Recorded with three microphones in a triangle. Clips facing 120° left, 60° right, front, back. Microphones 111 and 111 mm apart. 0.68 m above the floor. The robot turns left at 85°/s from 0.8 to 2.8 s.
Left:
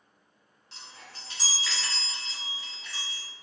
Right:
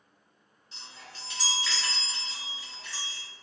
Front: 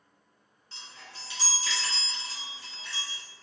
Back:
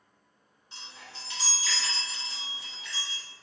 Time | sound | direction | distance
0.7 | a chime | 105° left | 1.3 m